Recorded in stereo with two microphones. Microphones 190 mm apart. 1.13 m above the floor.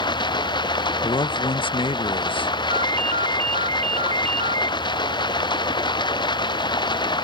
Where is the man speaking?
30° left (ahead or behind).